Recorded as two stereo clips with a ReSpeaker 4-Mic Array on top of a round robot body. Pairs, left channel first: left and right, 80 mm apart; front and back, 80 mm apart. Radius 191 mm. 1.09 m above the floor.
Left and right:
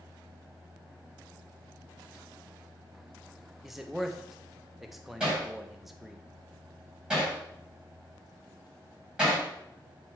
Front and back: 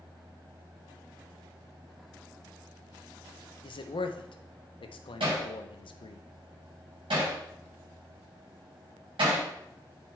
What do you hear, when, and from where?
3.6 s a man speaking: 5° right, 0.8 m
5.2 s hammering: 170° right, 5 m